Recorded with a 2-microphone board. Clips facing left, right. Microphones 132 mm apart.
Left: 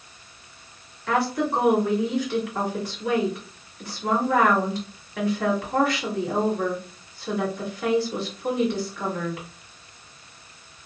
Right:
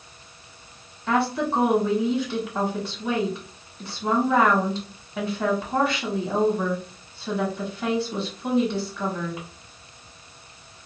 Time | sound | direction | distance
1.1 | a woman speaking | 25° right (ahead or behind) | 1.4 m